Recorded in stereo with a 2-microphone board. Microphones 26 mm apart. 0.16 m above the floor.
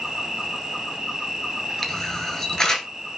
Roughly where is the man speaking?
No man speaking in this recording.